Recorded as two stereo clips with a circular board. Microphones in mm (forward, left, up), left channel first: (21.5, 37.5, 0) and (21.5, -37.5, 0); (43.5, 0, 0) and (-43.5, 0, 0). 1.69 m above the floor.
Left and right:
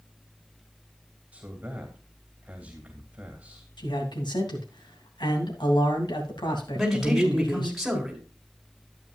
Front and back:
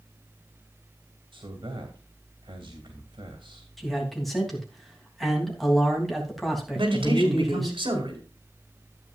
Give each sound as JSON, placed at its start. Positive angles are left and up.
{"t": 1.3, "sound": "a man speaking", "azimuth_deg": -160, "distance_m": 2.5}
{"t": 3.8, "sound": "a man speaking", "azimuth_deg": 90, "distance_m": 3.0}
{"t": 6.7, "sound": "a man speaking", "azimuth_deg": 180, "distance_m": 4.5}